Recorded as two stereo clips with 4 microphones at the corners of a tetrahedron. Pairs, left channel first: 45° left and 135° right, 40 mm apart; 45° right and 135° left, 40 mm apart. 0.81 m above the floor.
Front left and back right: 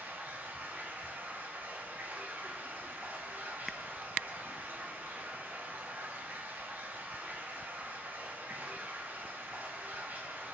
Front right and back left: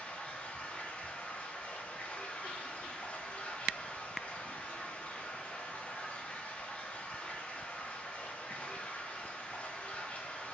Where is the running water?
95° right, 0.8 m.